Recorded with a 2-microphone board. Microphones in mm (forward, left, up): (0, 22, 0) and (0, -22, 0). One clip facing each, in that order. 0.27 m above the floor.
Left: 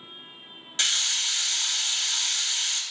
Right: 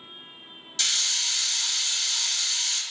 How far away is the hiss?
About 0.7 m.